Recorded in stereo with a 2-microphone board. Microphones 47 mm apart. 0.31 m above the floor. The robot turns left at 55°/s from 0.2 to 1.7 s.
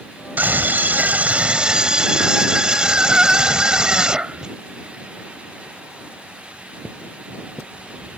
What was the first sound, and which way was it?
A scream, 80° right.